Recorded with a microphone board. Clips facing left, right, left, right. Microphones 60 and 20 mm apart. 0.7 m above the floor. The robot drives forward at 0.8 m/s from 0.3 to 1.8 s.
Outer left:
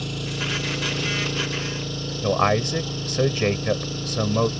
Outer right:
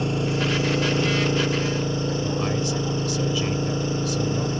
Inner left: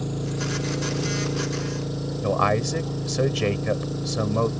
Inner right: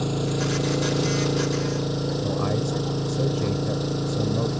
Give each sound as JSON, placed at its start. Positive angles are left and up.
{"t": 0.0, "sound": "an engine running", "side_deg": -30}
{"t": 2.2, "sound": "a man speaking", "side_deg": 60}